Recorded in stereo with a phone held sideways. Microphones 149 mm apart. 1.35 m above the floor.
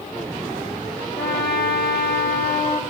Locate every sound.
1.2 s a trumpet: 80° left, 2.5 m